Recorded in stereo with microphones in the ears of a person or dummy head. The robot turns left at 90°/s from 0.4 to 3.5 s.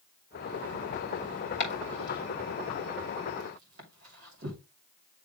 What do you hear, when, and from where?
1.6 s chopping: 70° left (ahead or behind), 3 m; by 4.6 s 80° right, 3 m